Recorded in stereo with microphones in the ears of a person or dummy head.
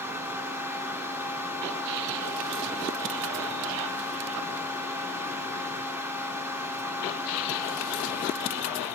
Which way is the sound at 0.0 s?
10° right (ahead or behind).